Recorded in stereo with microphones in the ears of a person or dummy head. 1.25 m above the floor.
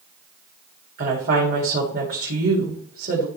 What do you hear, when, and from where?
1.0 s a woman speaking: 60° right (ahead or behind), 2.5 m